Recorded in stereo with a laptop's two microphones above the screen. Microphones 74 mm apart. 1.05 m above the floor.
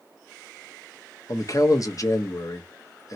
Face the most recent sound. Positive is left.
turn(degrees=45)  # may be behind; listen again after turning